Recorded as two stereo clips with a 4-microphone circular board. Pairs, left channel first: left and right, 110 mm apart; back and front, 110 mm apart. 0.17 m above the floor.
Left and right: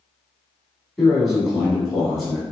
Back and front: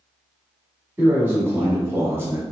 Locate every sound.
1.0 s a man speaking: straight ahead, 1.1 m